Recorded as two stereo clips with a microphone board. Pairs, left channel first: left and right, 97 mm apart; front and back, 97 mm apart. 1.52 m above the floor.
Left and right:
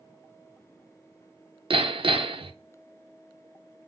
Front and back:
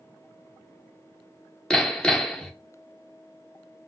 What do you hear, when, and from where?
1.7 s hammering: 80° right, 0.7 m